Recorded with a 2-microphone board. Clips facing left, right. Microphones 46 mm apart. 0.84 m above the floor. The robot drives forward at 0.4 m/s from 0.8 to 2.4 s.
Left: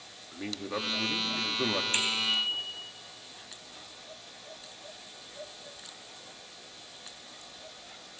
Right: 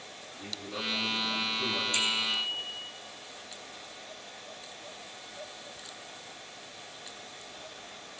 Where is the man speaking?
70° left (ahead or behind), 1.3 m; by 1.8 s 65° left (ahead or behind), 1.3 m.